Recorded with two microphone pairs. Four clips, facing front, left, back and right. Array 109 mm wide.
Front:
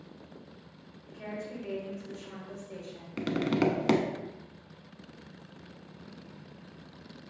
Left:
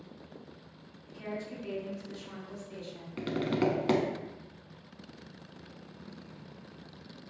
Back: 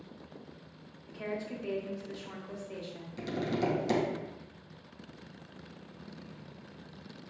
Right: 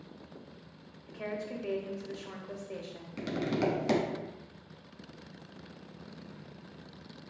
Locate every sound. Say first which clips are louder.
1.1 s a woman speaking: right 2 dB, back 2 dB; 105° right, 1.3 m
3.2 s tapping: left 1 dB, front 5 dB; 20° left, 0.6 m